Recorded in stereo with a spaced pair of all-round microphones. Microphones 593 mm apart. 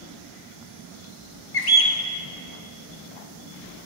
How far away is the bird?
About 1.2 m.